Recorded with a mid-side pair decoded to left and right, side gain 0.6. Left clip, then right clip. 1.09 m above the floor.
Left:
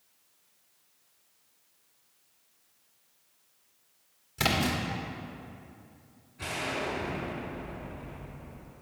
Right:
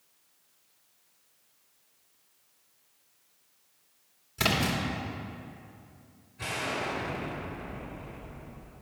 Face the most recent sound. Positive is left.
turn(degrees=0)